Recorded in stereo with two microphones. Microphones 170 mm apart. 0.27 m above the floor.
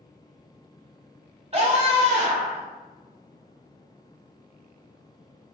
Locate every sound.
1.5 s a scream: 40° right (ahead or behind), 1.2 m